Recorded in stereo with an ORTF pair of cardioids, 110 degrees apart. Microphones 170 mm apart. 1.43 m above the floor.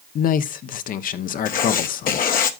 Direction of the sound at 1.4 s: 60° left.